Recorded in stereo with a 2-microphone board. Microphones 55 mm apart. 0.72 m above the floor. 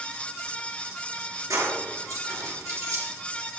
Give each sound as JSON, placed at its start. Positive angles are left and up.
{"t": 1.5, "sound": "keys jangling", "side_deg": -85, "distance_m": 9.0}